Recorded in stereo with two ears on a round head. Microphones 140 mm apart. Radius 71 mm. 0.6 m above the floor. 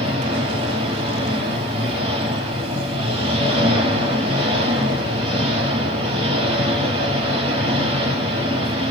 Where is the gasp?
No gasp in this recording.